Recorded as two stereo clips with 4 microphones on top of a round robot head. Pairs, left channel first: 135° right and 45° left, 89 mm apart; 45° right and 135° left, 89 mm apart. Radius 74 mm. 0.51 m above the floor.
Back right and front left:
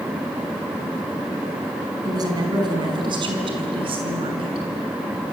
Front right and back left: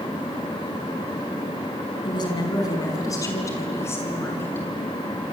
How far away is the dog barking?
No dog barking in this recording.